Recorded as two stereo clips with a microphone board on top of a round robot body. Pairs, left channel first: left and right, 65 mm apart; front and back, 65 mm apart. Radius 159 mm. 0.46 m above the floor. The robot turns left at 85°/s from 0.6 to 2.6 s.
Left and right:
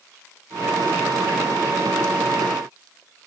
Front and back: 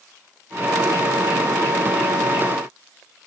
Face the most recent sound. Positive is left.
No sound to turn to.